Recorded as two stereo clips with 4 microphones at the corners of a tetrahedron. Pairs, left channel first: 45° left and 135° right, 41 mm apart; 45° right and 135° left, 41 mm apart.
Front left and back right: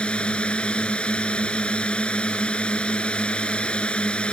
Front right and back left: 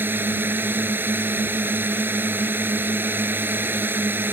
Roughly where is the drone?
Left.